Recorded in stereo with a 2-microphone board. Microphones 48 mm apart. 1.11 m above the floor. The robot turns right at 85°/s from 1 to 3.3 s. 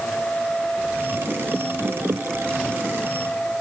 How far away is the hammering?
I don't hear hammering.